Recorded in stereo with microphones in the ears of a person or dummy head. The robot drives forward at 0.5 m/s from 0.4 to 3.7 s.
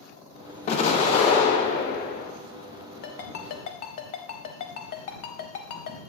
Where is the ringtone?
50° left (ahead or behind), 0.7 m; by 6.0 s 40° left (ahead or behind), 0.8 m.